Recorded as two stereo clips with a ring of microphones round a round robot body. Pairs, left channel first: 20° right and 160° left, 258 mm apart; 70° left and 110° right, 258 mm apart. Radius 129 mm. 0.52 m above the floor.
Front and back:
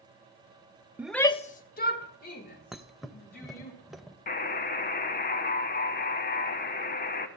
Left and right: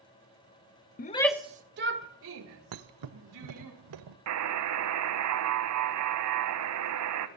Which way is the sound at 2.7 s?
115° right.